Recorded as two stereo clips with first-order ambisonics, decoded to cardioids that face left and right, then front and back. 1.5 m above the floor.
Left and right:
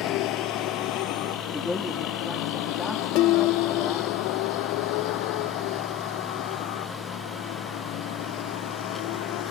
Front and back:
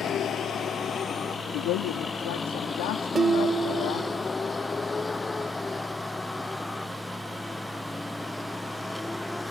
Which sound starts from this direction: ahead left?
A vehicle, at 0.0 s.